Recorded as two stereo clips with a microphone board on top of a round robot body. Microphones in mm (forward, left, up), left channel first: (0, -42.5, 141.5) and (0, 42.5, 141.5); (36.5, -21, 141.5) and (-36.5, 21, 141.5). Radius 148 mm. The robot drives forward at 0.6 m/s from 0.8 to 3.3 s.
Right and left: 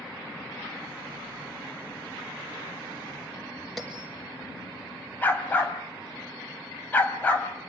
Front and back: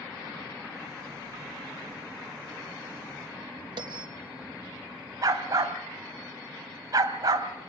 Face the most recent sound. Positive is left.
turn(degrees=-160)